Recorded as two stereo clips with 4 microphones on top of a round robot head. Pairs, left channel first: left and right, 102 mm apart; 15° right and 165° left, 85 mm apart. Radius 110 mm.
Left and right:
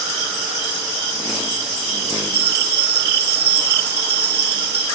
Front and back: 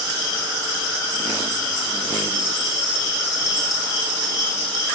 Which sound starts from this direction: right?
A bell, at 2.3 s.